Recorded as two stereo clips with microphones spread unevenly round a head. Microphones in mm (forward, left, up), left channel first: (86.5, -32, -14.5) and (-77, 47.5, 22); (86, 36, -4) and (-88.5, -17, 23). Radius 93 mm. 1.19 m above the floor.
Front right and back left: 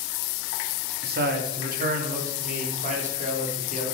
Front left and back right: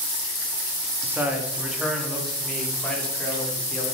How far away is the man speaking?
About 1.8 m.